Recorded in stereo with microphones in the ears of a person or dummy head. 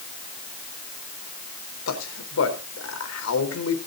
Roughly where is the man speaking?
Left.